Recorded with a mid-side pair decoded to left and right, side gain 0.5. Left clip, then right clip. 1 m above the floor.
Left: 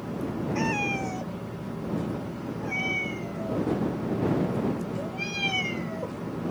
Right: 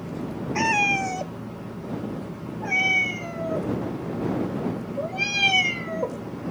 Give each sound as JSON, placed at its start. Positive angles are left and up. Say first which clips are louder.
{"t": 0.6, "sound": "a cat meowing", "louder": "right 8 dB", "azimuth_deg": -50}